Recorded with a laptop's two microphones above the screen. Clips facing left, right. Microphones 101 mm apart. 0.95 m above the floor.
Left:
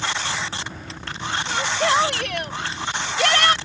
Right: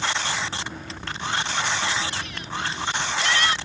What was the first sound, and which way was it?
A shout, 70° left (ahead or behind).